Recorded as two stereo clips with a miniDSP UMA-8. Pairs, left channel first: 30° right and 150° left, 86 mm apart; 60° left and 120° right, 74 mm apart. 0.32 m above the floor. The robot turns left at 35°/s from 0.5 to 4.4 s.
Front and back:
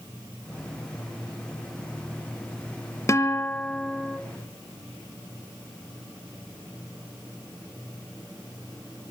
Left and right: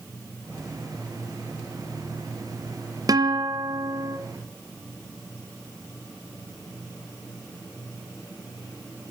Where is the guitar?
85° right, 2 m; by 4.2 s 125° right, 2 m.